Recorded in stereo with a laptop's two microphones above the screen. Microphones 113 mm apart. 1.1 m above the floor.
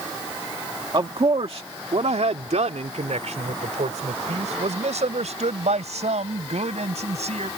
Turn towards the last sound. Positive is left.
turn(degrees=-75)  # may be behind; listen again after turning